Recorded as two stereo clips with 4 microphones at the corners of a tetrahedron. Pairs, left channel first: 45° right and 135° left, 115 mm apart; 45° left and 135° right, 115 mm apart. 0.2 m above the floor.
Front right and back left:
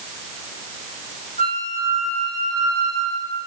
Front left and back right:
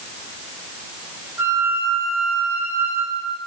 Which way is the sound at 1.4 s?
65° right.